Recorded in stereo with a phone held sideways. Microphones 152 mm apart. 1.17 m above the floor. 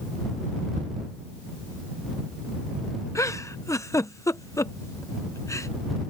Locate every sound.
0.8 s ticking: 55° right (ahead or behind)
3.1 s a giggle: 20° left (ahead or behind)